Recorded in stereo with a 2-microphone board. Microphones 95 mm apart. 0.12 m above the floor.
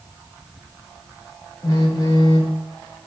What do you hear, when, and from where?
1.6 s a phone buzzing: 40° left (ahead or behind), 0.7 m